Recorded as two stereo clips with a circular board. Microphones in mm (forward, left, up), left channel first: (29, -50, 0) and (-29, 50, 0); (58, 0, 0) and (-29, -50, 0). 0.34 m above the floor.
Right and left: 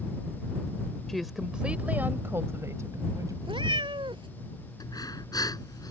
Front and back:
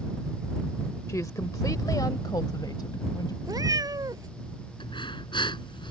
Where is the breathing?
5° right.